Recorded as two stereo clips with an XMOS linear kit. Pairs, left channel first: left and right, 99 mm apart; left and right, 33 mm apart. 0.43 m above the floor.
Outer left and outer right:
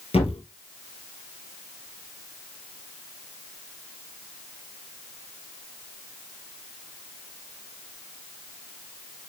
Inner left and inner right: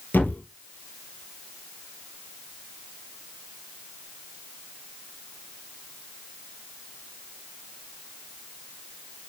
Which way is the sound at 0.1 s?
80° left.